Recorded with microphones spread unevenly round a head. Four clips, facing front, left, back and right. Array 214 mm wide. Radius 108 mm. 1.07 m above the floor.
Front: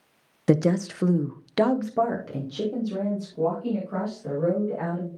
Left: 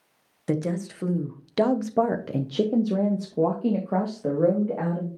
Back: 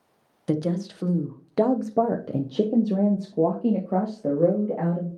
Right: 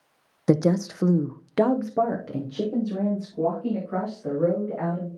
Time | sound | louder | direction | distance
0.5 | a woman speaking | right 6 dB, front 4 dB | 50° right | 1.0 m